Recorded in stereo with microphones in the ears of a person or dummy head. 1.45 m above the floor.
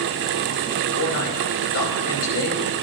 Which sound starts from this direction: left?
A man speaking, at 0.9 s.